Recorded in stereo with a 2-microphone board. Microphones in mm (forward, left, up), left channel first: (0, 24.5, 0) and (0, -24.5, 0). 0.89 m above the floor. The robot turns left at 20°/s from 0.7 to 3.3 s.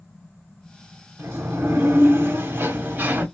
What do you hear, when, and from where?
1.2 s a sliding door: 90° right, 0.9 m; by 3.2 s 130° right, 0.9 m